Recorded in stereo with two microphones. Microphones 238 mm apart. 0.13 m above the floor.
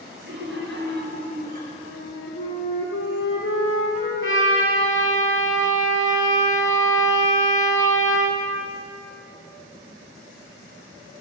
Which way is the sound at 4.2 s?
60° left (ahead or behind).